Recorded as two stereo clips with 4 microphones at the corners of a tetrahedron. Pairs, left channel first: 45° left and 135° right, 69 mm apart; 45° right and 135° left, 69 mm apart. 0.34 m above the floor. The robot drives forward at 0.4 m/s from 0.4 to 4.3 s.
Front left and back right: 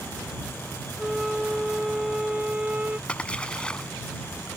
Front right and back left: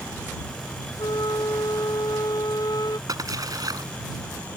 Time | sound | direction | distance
1.0 | a flute | 50° right | ?
3.1 | a splash | 115° left | ?